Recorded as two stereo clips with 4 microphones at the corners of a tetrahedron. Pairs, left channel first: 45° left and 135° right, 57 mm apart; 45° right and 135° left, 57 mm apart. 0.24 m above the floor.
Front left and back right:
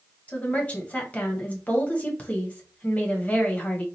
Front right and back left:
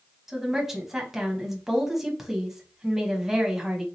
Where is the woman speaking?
60° left, 1.0 m.